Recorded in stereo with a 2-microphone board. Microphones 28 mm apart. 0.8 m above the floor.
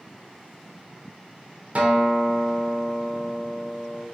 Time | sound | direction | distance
1.8 | a guitar | 50° right (ahead or behind) | 0.6 m